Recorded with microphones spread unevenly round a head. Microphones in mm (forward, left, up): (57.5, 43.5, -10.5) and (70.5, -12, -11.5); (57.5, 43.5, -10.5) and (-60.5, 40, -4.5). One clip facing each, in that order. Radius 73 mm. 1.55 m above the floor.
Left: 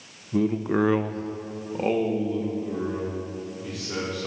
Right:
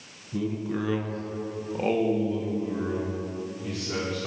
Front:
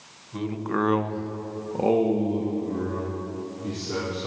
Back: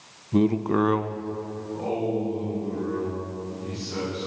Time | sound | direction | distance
0.3 | a man speaking | 160° left | 0.8 m